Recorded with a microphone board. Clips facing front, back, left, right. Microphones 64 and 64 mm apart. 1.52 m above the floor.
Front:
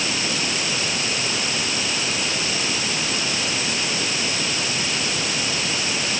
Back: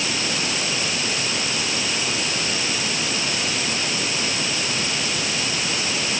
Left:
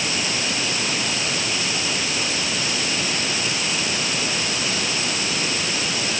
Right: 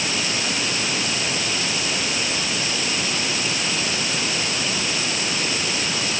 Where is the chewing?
I don't hear chewing.